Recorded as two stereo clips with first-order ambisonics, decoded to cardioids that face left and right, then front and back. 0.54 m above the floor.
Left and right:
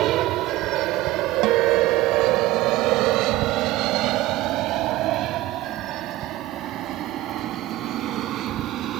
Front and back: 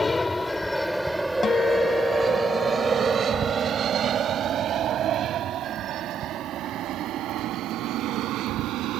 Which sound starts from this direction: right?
An aircraft, at 0.0 s.